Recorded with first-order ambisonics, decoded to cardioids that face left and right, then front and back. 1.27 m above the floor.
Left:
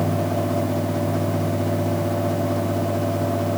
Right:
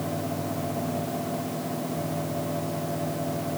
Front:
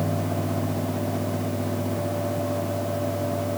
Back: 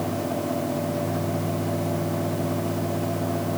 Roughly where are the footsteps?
No footsteps in this recording.